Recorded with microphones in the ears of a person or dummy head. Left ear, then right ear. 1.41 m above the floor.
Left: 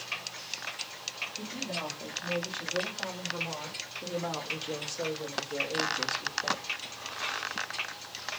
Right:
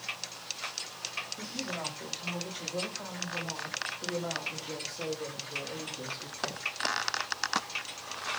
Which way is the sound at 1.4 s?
5° right (ahead or behind).